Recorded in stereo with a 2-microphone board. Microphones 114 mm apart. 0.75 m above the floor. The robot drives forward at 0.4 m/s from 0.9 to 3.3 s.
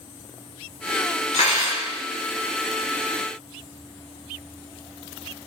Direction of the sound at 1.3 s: 65° left (ahead or behind).